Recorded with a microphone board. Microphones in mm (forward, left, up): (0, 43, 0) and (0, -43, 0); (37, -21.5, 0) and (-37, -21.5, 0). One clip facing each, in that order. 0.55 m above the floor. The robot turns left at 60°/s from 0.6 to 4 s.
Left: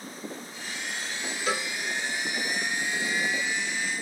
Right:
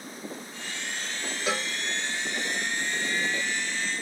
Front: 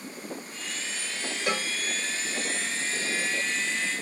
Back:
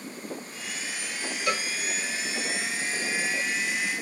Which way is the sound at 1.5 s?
40° right.